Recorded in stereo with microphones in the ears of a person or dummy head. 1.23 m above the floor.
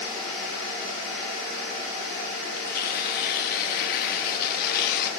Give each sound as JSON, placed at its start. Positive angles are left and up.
{"t": 2.6, "sound": "tearing paper", "side_deg": 50, "distance_m": 1.5}